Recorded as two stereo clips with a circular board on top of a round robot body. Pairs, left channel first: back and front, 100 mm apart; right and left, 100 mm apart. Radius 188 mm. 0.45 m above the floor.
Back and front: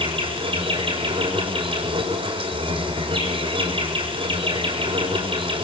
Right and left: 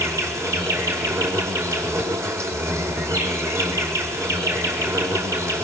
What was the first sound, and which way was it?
An insect, 30° left.